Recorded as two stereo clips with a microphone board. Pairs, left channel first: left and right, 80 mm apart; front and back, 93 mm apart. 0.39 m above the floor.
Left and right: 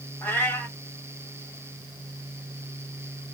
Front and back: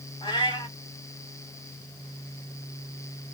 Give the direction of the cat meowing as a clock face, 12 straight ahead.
11 o'clock.